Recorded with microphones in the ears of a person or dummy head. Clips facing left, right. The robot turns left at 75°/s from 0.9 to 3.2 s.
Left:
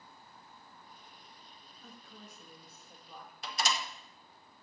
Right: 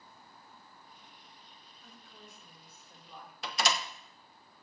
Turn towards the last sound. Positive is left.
turn(degrees=-65)  # may be behind; listen again after turning